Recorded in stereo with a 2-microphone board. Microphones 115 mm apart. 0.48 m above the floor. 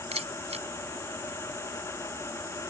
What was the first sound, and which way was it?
A camera shutter, 65° right (ahead or behind).